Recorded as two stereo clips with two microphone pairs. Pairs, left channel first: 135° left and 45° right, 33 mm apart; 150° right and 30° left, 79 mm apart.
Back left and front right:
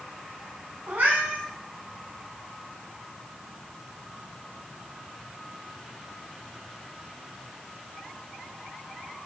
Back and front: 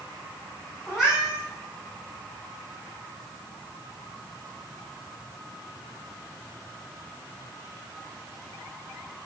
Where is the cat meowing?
60° right, 7 m.